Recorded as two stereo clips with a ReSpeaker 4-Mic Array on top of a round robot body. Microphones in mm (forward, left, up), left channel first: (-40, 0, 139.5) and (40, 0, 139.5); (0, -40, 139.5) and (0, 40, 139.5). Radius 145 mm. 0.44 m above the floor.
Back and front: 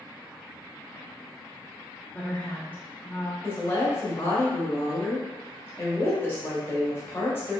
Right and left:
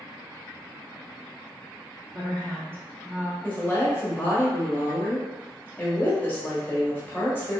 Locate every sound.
2.1 s a woman speaking: 135° left, 1.6 m
3.4 s a woman speaking: 140° right, 1.2 m